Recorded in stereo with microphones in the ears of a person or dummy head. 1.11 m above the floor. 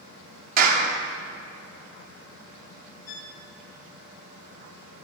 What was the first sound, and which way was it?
A clap, 50° right (ahead or behind).